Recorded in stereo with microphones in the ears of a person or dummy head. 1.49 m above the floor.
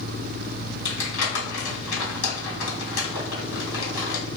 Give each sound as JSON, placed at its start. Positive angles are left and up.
{"t": 0.8, "sound": "crumpling", "side_deg": 70, "distance_m": 1.7}